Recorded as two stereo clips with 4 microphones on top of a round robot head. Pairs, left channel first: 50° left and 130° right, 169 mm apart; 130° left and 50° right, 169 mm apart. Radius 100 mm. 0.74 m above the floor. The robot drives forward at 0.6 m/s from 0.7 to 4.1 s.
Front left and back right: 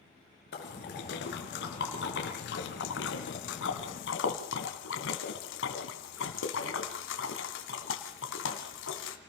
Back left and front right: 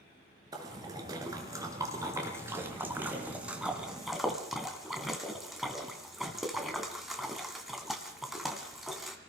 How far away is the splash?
About 4 m.